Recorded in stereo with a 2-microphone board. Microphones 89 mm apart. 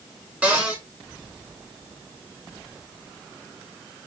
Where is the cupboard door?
15° right (ahead or behind), 1.2 m.